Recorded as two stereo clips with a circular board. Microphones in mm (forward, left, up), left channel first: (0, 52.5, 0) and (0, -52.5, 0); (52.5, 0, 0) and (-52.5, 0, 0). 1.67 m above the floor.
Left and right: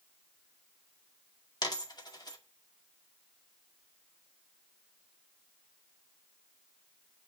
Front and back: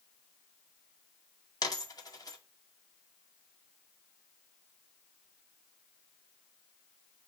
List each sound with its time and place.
1.6 s a dropped coin: 45° left, 2 m